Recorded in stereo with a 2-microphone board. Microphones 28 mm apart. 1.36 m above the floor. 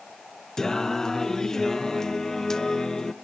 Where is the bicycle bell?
No bicycle bell in this recording.